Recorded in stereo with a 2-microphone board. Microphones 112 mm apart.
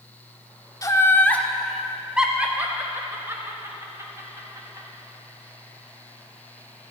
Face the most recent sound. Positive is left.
turn(degrees=-30)  # may be behind; listen again after turning